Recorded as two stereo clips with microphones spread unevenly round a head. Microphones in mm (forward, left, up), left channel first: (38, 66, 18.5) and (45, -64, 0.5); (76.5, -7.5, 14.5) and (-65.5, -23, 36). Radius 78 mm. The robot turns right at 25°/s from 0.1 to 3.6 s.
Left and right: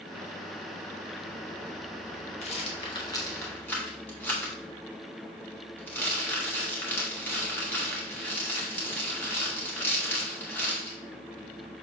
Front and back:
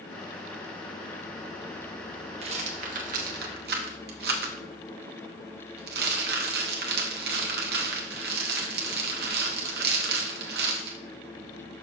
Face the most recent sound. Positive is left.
turn(degrees=170)